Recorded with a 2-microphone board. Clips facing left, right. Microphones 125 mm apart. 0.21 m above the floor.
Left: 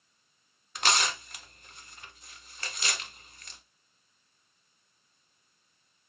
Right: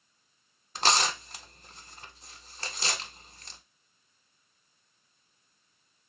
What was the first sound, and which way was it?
Tearing paper, 35° right (ahead or behind).